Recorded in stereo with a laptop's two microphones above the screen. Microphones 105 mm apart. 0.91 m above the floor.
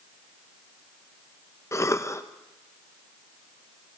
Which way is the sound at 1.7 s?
25° left (ahead or behind).